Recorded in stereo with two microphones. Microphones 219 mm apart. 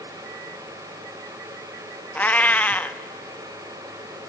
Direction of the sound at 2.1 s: 5° left (ahead or behind).